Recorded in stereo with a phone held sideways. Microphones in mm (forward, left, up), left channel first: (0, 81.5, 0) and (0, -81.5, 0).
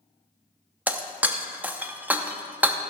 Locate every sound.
0.9 s breaking glass: 10° right (ahead or behind), 0.6 m